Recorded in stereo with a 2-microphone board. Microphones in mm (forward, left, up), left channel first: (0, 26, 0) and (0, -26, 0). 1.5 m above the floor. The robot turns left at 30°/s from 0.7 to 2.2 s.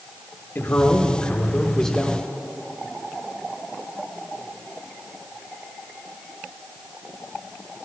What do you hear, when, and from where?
0.6 s a man speaking: 45° left, 1.5 m; by 2.2 s straight ahead, 1.5 m